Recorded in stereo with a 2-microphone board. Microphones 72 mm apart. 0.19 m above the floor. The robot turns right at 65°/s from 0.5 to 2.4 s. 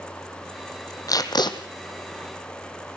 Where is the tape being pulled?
55° left, 1.6 m; by 1.6 s 85° left, 1.6 m.